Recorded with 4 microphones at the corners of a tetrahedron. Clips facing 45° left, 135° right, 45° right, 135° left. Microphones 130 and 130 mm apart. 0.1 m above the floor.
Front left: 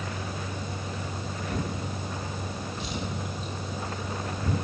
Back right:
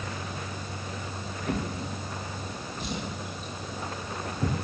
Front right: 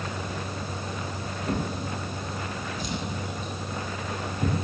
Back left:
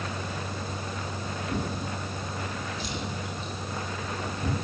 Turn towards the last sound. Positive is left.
turn(degrees=-90)